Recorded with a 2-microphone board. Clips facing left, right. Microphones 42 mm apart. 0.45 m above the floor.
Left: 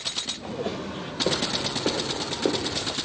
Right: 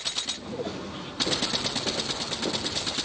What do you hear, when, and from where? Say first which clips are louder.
0.4 s footsteps: left 6 dB; 60° left (ahead or behind), 3 m; by 2.9 s 45° left (ahead or behind), 1.7 m